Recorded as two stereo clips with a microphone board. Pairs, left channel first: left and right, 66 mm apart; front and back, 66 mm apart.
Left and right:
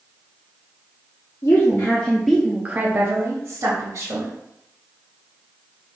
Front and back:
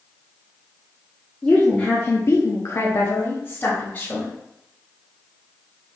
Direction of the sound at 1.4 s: 70° left.